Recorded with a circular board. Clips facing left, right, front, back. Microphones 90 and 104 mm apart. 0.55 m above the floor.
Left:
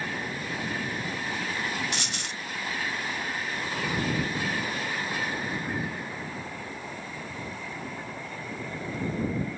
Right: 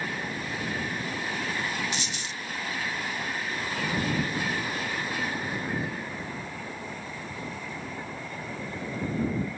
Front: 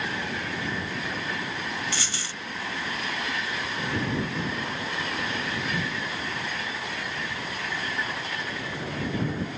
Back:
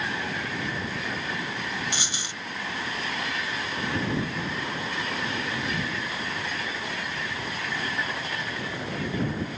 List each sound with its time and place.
1.9 s a dropped coin: 110° left